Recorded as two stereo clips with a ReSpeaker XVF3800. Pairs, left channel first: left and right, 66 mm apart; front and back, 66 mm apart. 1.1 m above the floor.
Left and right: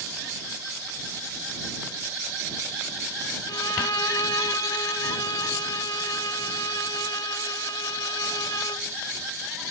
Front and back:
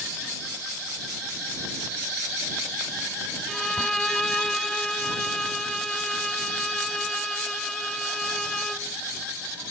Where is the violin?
85° left.